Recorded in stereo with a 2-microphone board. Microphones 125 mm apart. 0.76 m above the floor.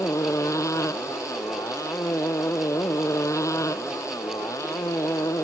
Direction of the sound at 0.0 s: 25° left (ahead or behind).